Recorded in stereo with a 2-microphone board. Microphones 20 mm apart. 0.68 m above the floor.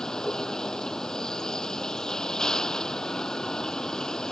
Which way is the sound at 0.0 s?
30° left (ahead or behind).